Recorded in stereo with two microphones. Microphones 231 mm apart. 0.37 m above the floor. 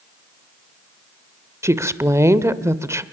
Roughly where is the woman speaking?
Centre.